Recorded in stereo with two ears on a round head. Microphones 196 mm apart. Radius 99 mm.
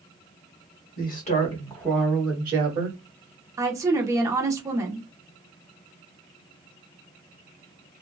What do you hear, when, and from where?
1.0 s a woman speaking: 45° left (ahead or behind), 1.0 m; by 3.0 s 35° right (ahead or behind), 1.3 m
3.6 s a woman speaking: 15° right (ahead or behind), 0.8 m